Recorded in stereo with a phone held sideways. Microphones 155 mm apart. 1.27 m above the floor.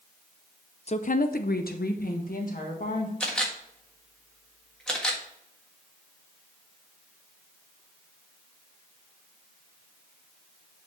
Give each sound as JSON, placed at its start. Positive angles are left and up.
{"t": 0.9, "sound": "a woman speaking", "side_deg": 45, "distance_m": 0.6}
{"t": 3.2, "sound": "a camera shutter", "side_deg": 5, "distance_m": 1.4}